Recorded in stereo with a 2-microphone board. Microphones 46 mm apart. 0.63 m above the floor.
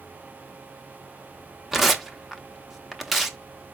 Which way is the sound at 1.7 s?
5° right (ahead or behind).